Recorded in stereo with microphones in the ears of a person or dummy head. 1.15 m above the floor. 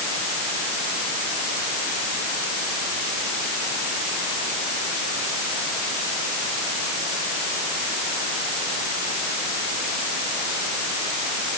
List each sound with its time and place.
Only background noise.